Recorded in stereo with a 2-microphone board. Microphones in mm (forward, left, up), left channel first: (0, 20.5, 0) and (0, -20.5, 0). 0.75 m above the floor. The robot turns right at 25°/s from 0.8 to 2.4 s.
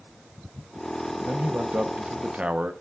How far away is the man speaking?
About 0.6 m.